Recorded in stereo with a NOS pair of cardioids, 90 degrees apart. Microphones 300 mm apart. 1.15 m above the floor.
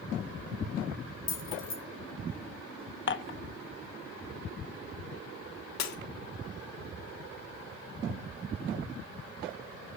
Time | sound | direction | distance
1.3 | keys jangling | 40° left | 2.5 m
3.1 | dishes clattering | 40° left | 0.9 m
5.8 | breaking glass | 60° left | 1.5 m